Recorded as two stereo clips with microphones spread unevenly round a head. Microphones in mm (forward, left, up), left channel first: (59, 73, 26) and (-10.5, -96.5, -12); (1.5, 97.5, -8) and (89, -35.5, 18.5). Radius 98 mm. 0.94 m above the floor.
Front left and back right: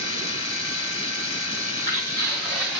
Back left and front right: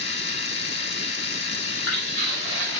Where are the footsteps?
130° left, 3.5 m; by 2.8 s 155° left, 2.5 m.